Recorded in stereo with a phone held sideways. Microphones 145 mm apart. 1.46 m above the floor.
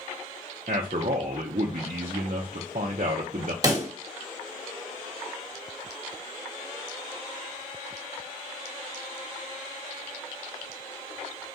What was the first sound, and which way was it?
A man speaking, 60° right (ahead or behind).